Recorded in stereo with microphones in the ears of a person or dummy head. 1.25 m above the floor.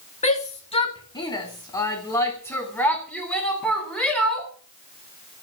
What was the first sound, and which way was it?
A shout, 35° left (ahead or behind).